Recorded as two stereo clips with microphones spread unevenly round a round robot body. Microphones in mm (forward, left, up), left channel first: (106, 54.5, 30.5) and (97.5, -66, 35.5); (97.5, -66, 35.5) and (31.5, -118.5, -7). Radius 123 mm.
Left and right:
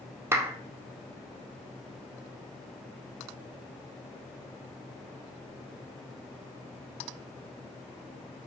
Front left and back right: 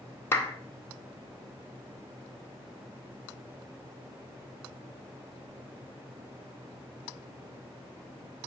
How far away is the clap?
About 0.6 m.